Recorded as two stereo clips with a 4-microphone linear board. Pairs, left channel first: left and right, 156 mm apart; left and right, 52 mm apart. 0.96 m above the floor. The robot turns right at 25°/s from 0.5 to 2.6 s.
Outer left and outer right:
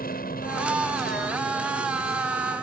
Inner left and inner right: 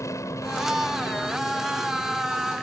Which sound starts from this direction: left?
An aircraft, at 0.0 s.